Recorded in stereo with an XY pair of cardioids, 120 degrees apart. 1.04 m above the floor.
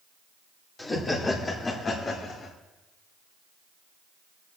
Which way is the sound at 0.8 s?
20° left.